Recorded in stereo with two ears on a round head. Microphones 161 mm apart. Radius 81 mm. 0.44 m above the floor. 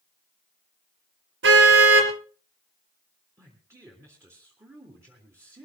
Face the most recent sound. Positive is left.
turn(degrees=-15)  # may be behind; listen again after turning